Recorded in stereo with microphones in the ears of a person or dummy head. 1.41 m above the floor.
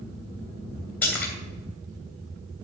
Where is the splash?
10° left (ahead or behind), 3 m.